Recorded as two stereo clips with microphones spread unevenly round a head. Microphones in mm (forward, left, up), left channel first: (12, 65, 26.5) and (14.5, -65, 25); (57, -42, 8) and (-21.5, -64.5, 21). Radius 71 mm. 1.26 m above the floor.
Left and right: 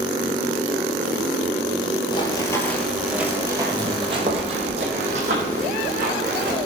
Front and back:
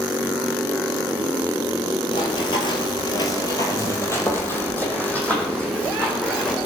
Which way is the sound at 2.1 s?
50° left.